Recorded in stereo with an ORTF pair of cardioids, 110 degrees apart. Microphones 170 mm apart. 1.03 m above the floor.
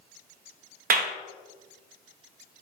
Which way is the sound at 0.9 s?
55° right.